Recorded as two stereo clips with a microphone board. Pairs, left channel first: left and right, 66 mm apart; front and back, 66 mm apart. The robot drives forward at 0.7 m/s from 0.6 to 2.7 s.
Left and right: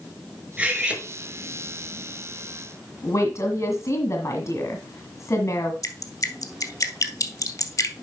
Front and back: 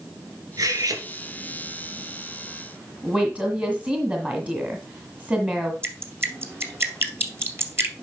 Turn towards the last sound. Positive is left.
turn(degrees=130)